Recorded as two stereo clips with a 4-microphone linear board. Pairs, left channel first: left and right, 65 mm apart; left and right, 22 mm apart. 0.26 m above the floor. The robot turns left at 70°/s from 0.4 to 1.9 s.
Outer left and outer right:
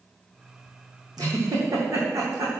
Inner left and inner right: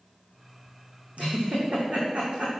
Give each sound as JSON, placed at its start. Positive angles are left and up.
{"t": 1.2, "sound": "a giggle", "side_deg": -80, "distance_m": 2.5}